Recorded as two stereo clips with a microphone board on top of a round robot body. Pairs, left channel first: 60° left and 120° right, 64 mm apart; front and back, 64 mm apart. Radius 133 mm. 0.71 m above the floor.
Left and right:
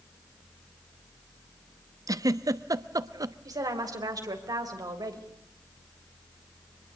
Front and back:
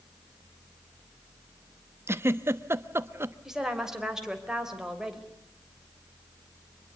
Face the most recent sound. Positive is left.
turn(degrees=-100)